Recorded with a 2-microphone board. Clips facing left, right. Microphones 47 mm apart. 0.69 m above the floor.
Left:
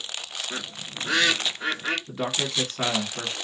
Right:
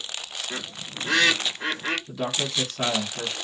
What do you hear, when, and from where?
0.5 s a bird: 40° right (ahead or behind), 1.8 m
2.1 s a man speaking: 30° left (ahead or behind), 1.2 m